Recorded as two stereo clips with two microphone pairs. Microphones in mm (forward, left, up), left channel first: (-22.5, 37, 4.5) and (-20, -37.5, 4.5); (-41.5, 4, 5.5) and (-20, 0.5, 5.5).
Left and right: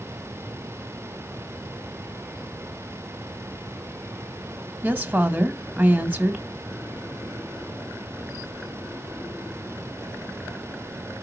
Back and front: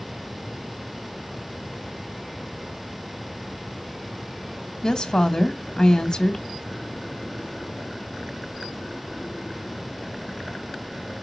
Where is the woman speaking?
155° right, 1.7 m.